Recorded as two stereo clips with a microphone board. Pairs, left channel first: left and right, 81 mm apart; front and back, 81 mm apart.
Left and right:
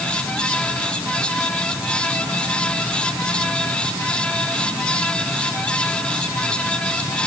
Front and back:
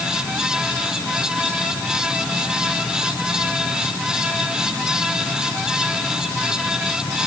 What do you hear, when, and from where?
Only background noise.